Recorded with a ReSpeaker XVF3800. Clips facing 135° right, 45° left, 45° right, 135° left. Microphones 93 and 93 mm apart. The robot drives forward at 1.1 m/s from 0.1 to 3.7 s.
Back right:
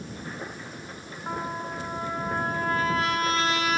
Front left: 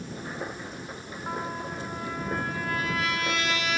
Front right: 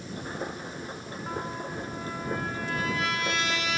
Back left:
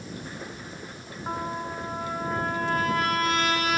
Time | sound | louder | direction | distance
1.3 | a trumpet | back right 1 dB, back left 4 dB | 145° left | 0.8 m